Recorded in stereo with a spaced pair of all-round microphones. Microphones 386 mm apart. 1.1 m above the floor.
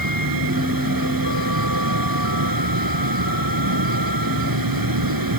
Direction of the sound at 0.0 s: 60° right (ahead or behind).